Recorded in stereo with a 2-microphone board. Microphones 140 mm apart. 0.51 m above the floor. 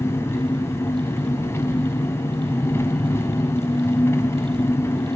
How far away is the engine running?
About 2 m.